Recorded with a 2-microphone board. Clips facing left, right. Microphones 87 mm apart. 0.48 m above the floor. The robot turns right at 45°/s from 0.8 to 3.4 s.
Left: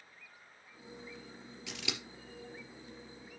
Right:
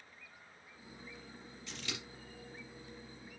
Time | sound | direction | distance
1.7 | scissors | 85° left | 3 m